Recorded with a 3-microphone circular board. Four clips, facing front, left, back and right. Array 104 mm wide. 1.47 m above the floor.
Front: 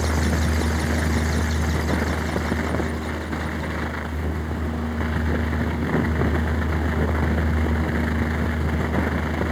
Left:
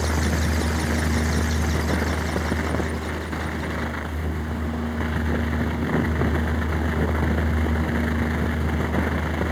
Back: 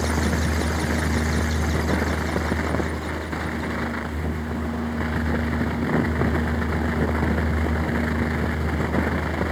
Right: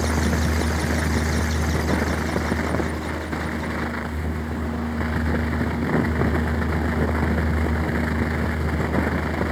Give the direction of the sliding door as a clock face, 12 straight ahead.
I don't hear a sliding door.